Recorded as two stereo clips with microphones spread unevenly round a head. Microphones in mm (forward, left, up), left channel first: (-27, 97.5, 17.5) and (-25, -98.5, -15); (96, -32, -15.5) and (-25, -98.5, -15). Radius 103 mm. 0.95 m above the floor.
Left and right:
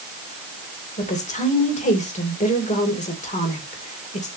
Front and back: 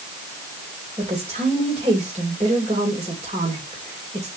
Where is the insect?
I don't hear an insect.